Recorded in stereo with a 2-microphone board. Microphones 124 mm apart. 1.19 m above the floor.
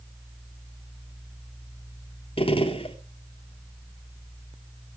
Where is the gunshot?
50° left (ahead or behind), 3 m.